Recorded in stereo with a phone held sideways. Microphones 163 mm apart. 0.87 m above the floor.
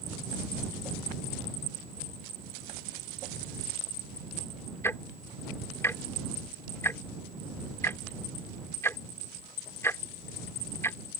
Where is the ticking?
15° left (ahead or behind).